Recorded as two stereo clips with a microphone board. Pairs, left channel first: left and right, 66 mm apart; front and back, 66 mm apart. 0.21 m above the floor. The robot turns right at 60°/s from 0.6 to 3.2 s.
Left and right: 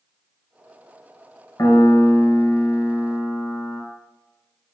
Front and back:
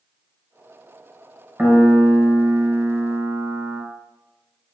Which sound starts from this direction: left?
A piano, at 1.6 s.